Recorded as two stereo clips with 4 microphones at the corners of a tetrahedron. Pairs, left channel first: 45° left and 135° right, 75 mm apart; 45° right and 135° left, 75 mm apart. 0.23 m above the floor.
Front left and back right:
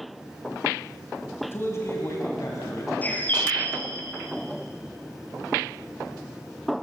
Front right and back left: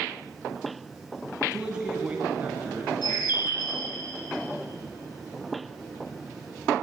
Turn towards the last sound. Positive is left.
turn(degrees=-25)